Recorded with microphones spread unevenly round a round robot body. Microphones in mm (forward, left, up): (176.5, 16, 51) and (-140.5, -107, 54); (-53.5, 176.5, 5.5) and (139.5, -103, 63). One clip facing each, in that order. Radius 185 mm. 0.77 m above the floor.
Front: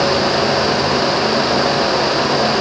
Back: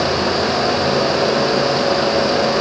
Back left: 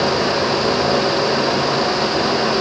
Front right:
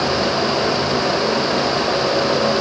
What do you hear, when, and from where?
Only background noise.